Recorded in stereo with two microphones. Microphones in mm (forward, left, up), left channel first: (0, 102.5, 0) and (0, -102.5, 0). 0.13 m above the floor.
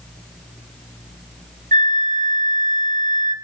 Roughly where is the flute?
Right.